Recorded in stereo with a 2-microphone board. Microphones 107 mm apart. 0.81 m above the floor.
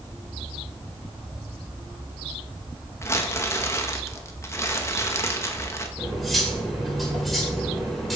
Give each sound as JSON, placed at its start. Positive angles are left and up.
{"t": 3.0, "sound": "crumpling", "side_deg": 25, "distance_m": 1.0}
{"t": 6.0, "sound": "cutlery clinking", "side_deg": 0, "distance_m": 2.0}